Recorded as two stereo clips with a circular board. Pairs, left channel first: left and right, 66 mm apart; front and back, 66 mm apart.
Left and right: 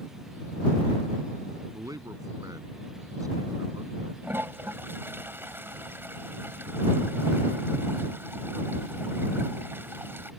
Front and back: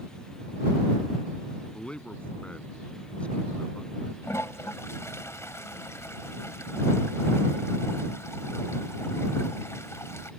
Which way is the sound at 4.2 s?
40° right.